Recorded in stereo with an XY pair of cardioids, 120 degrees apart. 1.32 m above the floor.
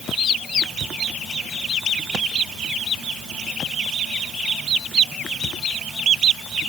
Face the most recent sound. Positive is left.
No sound to turn to.